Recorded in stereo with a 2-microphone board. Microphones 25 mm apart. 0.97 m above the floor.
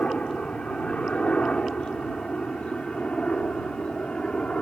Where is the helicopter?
60° left (ahead or behind); by 4.6 s 55° left (ahead or behind).